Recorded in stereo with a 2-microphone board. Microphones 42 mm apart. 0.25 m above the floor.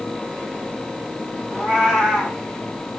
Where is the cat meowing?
5° right (ahead or behind), 6 m.